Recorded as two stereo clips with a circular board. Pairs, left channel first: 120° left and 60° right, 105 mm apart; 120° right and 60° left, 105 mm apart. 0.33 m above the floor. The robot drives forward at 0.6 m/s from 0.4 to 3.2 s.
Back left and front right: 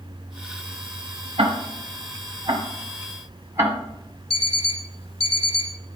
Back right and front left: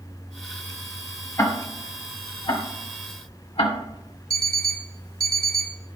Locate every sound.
1.4 s ticking: 65° right, 1.2 m; by 3.8 s 120° right, 1.3 m
4.3 s an alarm clock: 120° left, 1.5 m